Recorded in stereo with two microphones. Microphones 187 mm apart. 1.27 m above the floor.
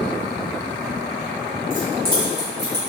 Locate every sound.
1.7 s keys jangling: 50° right (ahead or behind), 1.4 m; by 2.9 s 70° right (ahead or behind), 1.2 m